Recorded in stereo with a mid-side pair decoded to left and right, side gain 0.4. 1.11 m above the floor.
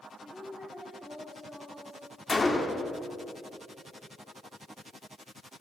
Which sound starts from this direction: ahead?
A woman speaking, at 0.2 s.